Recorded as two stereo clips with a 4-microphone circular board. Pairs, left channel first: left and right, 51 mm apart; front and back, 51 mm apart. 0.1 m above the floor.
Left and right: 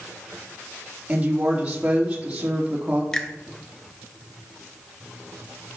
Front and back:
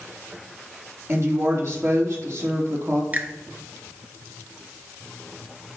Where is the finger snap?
155° left, 1.4 m.